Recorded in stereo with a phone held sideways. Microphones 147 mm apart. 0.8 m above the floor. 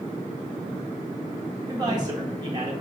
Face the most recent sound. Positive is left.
turn(degrees=-30)  # may be behind; listen again after turning